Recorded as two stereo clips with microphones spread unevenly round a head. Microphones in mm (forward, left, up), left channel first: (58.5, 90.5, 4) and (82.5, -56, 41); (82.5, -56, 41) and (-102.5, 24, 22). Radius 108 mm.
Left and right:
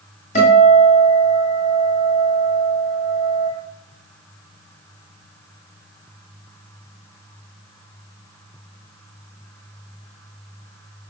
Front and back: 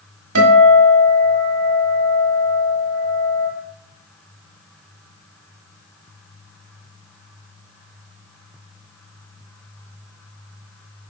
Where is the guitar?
160° left, 1.8 m.